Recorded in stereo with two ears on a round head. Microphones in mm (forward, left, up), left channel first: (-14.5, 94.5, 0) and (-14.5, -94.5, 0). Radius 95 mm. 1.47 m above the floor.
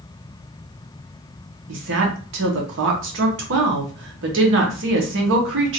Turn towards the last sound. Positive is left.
turn(degrees=-65)  # may be behind; listen again after turning